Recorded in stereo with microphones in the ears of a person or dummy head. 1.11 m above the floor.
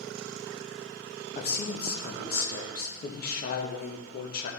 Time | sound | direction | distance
1.4 | a man speaking | 45° left (ahead or behind) | 1.5 m